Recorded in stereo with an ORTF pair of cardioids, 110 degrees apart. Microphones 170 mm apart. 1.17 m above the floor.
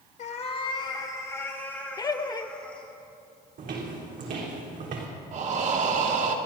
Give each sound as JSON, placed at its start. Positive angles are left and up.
{"t": 0.2, "sound": "a cat meowing", "azimuth_deg": 50, "distance_m": 1.1}
{"t": 2.0, "sound": "laughter", "azimuth_deg": 20, "distance_m": 0.9}
{"t": 3.6, "sound": "footsteps", "azimuth_deg": -55, "distance_m": 3.5}
{"t": 5.3, "sound": "breathing", "azimuth_deg": -45, "distance_m": 1.5}